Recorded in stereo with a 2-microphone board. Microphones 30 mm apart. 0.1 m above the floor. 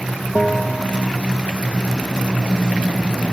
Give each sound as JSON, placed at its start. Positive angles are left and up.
{"t": 0.3, "sound": "a bell", "side_deg": 20, "distance_m": 1.1}